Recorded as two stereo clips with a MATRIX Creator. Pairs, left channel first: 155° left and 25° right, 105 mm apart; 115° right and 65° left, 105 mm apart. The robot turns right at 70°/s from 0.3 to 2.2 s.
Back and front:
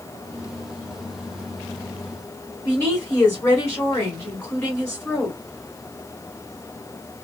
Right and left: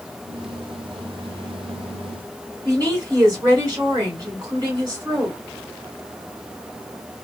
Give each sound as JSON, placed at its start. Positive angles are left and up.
{"t": 2.6, "sound": "a woman speaking", "azimuth_deg": 100, "distance_m": 1.6}